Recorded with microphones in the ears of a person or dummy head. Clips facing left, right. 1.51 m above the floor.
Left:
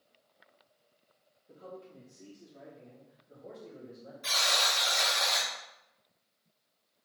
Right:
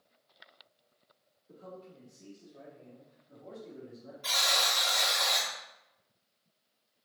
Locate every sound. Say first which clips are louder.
1.5 s a man speaking: left 1 dB; 55° left (ahead or behind), 1.9 m; by 4.1 s 5° left (ahead or behind), 1.1 m
4.2 s a buzzer: even; 25° left (ahead or behind), 1.2 m